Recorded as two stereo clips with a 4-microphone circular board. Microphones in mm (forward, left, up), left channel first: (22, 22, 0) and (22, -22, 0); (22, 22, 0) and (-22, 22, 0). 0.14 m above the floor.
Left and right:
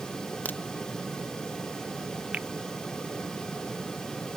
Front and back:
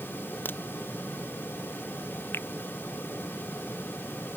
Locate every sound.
0.5 s a crack: 40° left
2.3 s a finger snap: 25° right